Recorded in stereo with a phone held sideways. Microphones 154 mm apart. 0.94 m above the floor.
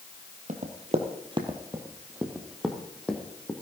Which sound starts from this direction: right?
Running footsteps, at 0.5 s.